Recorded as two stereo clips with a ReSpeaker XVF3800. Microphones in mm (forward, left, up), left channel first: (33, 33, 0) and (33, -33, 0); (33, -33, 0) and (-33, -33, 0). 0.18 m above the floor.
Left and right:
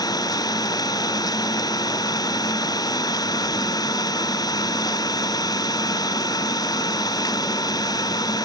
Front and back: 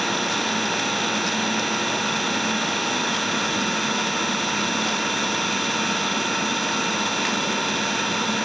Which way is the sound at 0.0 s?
90° left.